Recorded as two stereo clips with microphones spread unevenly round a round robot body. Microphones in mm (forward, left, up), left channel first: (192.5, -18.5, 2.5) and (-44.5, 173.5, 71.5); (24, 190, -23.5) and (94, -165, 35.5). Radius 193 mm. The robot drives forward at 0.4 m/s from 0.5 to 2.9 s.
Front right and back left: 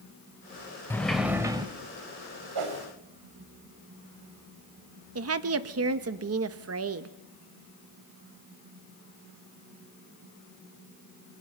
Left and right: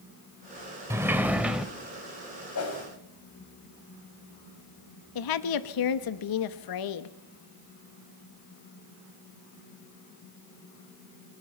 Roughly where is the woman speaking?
Left.